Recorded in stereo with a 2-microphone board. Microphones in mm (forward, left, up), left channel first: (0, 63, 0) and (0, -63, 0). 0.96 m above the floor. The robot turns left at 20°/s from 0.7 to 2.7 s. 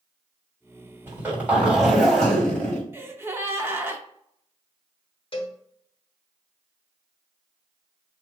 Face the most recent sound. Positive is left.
turn(degrees=45)  # may be behind; listen again after turning